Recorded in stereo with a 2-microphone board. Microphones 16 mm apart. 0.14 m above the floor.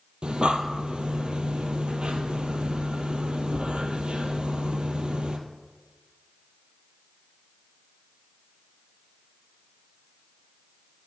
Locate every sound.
0.2 s breathing: 70° right (ahead or behind), 1.6 m